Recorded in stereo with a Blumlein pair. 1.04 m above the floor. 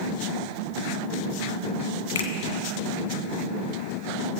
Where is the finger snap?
60° left, 1.2 m.